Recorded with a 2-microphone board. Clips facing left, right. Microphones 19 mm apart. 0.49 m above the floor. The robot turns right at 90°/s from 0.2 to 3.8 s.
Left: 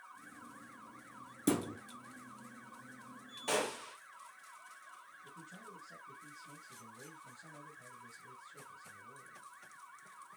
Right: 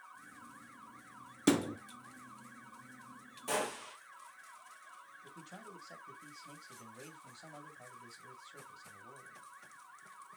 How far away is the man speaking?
About 3 m.